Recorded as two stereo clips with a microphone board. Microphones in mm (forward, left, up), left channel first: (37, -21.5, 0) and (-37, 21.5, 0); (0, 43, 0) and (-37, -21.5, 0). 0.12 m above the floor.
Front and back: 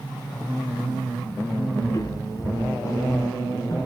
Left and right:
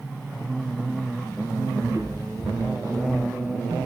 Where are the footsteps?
80° right, 8.5 m.